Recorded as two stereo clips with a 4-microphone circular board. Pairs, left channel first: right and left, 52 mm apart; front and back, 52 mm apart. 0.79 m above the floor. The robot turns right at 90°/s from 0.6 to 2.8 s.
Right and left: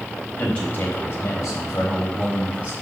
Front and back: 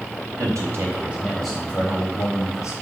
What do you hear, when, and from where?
0.4 s a man speaking: 155° right, 4 m; by 2.7 s 35° left, 4 m